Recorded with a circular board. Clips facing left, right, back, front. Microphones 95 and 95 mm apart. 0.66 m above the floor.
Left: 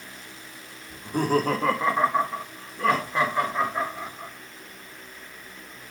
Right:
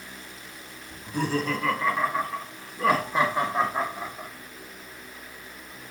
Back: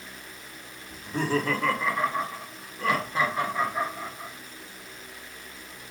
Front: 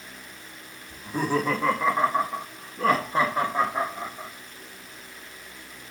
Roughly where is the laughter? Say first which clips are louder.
Left 4 dB, front 1 dB; left.